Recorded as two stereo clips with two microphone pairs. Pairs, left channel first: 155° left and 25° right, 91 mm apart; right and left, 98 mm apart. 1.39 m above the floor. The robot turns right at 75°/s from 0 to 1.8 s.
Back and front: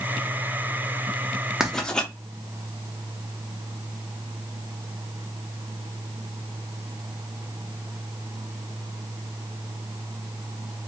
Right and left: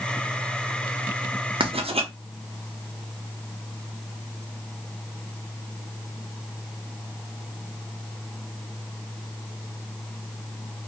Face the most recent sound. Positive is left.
turn(degrees=75)